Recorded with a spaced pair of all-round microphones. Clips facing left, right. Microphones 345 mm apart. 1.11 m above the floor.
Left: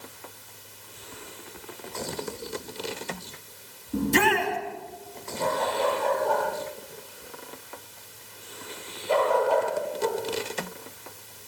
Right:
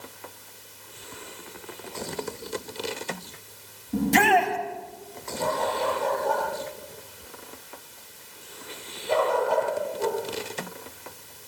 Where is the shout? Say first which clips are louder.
Right 1 dB; 80° right, 7 m.